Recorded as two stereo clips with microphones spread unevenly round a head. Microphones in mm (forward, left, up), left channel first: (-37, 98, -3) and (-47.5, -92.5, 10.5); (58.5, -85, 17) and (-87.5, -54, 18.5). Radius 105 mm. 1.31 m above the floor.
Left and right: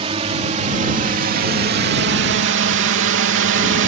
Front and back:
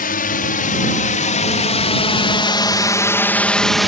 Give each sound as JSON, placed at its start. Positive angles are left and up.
{"t": 0.0, "sound": "a drone", "azimuth_deg": -30}